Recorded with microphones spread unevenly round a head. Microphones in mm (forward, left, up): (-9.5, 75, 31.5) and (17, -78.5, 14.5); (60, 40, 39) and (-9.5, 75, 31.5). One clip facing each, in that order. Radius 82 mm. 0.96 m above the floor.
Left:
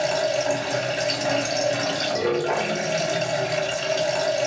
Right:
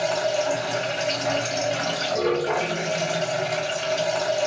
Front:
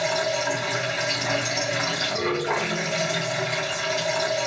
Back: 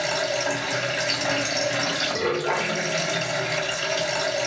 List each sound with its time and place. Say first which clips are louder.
0.0 s running water: left 1 dB, front 1 dB; 135° left, 1.7 m